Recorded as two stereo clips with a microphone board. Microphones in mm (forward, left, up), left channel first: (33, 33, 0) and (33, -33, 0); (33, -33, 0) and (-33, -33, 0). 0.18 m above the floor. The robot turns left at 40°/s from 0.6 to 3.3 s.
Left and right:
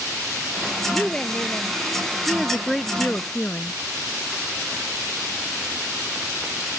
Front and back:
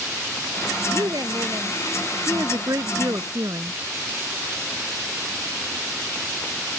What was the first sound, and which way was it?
A woman speaking, straight behind.